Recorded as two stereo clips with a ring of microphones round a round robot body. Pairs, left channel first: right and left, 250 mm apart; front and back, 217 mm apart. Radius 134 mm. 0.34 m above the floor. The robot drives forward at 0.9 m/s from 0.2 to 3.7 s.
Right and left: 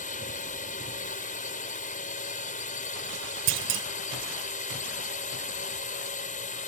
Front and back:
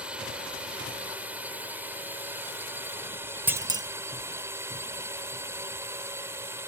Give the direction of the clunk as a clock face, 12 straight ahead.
9 o'clock.